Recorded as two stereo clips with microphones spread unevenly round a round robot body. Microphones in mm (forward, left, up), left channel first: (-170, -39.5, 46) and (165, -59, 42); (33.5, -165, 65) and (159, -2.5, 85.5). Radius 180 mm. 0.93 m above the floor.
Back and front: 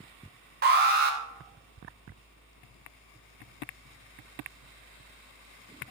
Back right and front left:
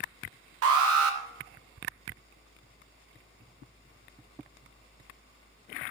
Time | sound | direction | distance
0.6 | an alarm | 60° left | 0.9 m